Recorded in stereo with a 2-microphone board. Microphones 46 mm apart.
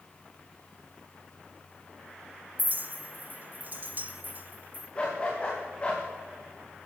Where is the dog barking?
25° left (ahead or behind), 7.5 m.